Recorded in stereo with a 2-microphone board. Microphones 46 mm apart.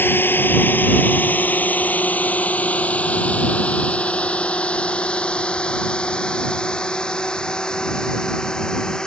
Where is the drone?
50° left (ahead or behind); by 9.1 s 15° left (ahead or behind).